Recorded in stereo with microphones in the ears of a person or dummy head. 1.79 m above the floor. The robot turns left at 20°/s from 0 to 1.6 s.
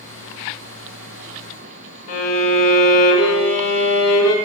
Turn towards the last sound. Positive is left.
turn(degrees=80)